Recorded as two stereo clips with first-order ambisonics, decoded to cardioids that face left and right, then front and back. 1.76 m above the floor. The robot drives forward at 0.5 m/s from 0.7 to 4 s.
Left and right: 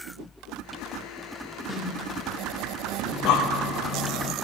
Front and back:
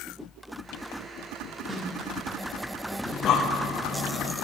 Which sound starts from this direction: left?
A snare drum, at 1.7 s.